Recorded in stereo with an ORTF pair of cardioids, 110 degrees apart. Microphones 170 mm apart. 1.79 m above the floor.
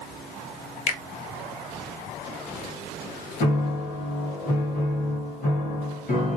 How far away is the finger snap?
About 0.7 m.